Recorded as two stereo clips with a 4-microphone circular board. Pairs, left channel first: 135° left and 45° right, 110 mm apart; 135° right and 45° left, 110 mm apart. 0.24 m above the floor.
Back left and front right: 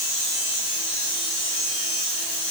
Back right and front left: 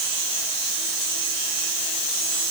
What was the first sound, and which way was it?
Only background noise.